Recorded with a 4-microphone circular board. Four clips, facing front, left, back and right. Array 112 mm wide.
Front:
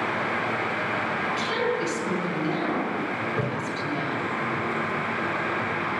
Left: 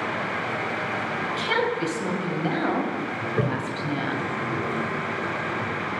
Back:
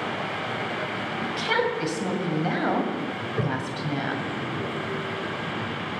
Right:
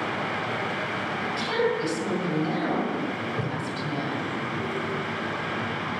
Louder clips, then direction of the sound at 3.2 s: Left 4 dB, even; 90° left.